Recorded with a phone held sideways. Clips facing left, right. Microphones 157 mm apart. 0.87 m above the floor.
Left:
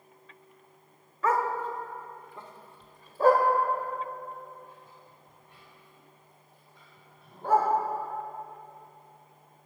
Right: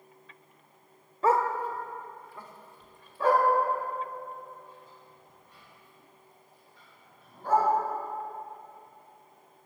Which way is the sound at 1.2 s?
30° right (ahead or behind).